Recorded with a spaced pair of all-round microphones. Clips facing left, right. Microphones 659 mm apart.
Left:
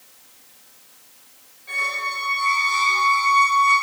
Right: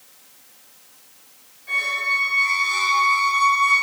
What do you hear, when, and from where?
1.7 s a squeak: 50° right (ahead or behind), 1.7 m